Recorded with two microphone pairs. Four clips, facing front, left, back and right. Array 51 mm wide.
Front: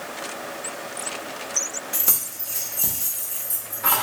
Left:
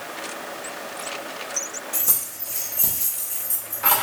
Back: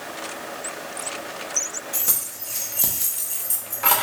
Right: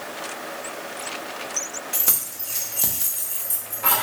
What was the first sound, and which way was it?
Keys jangling, 80° right.